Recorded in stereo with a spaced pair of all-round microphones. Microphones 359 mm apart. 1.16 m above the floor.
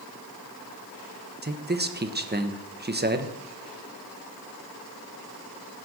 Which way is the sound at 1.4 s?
25° right (ahead or behind).